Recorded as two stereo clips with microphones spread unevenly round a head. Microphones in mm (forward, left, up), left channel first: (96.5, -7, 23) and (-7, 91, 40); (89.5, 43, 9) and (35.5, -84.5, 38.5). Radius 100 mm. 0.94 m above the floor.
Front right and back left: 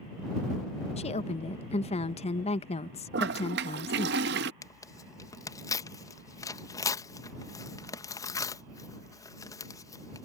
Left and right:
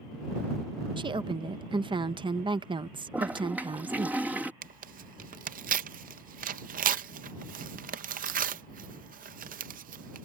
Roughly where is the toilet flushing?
Behind.